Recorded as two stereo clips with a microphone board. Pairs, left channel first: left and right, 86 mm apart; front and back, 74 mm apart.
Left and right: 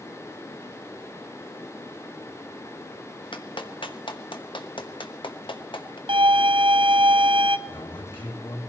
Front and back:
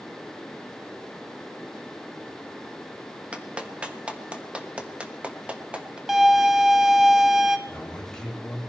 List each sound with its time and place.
3.3 s a clap: 105° left, 1.3 m
6.1 s a violin: 95° right, 0.8 m
7.7 s a man speaking: 80° left, 4 m